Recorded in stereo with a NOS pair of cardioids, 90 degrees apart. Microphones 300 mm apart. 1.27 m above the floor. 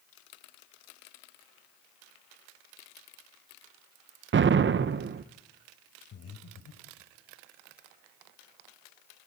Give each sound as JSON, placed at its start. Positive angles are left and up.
{"t": 4.3, "sound": "an explosion", "azimuth_deg": -40, "distance_m": 1.2}
{"t": 6.1, "sound": "breathing", "azimuth_deg": 55, "distance_m": 3.0}